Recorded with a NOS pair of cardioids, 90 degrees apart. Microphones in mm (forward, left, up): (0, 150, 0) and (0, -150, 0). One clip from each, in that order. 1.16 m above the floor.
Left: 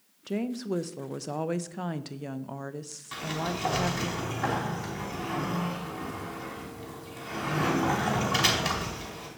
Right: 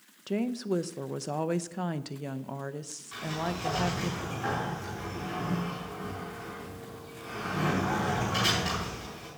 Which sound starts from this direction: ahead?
A woman speaking, at 0.3 s.